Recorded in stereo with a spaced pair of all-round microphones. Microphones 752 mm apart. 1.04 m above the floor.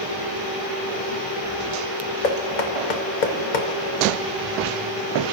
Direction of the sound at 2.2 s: 90° left.